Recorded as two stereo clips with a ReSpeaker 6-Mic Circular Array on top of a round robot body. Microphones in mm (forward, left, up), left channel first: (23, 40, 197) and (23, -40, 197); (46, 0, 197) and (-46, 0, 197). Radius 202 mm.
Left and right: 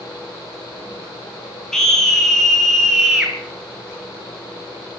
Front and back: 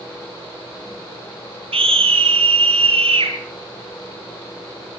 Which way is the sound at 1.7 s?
170° left.